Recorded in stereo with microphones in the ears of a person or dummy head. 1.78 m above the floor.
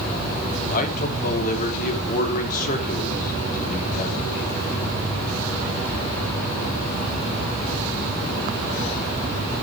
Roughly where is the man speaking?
Left.